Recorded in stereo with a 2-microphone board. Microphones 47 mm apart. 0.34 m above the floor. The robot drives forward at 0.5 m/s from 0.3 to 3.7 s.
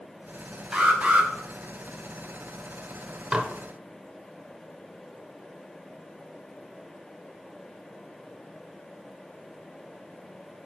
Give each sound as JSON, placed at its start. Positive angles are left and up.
{"t": 0.7, "sound": "an alarm", "side_deg": -20, "distance_m": 1.1}
{"t": 3.3, "sound": "dishes clattering", "side_deg": -20, "distance_m": 0.6}